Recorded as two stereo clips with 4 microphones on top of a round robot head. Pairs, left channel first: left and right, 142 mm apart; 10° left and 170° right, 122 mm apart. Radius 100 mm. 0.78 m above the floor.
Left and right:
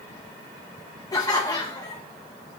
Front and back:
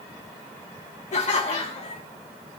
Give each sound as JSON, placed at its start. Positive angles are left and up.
{"t": 1.1, "sound": "laughter", "azimuth_deg": 25, "distance_m": 1.4}